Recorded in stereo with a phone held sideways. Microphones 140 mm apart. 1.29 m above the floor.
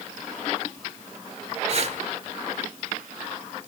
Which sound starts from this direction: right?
Breathing, at 1.7 s.